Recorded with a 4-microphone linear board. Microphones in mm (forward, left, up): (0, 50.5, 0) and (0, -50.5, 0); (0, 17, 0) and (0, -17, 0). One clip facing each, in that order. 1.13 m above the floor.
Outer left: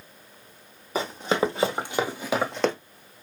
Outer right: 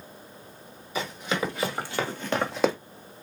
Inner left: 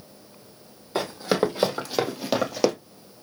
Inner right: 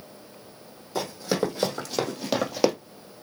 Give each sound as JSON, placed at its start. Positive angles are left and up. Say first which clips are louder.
{"t": 0.9, "sound": "running footsteps", "louder": "outer left 5 dB, inner left 3 dB", "side_deg": 40, "distance_m": 2.0}